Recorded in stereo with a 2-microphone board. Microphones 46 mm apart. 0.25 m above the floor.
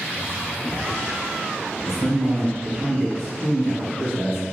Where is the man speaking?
10° right (ahead or behind), 1.6 m.